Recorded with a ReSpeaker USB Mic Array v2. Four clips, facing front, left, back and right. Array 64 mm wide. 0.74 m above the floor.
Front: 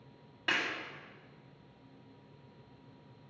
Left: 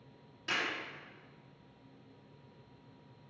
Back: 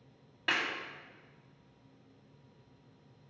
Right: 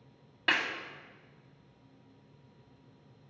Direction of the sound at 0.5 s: 90° right.